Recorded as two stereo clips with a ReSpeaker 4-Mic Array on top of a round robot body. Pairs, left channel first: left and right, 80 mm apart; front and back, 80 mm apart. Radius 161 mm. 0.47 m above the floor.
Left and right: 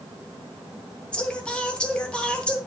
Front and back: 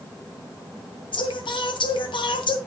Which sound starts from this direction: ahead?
Singing, at 1.1 s.